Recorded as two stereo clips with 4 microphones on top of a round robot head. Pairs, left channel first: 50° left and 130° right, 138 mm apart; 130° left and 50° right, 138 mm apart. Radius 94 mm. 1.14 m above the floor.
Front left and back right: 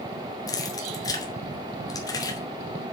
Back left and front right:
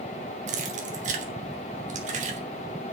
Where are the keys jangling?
15° right, 2.5 m.